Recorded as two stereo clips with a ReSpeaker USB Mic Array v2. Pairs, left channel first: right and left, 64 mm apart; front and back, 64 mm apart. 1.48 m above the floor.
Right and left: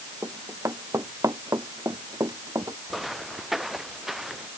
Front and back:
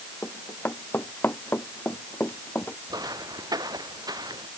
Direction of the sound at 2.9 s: 175° left.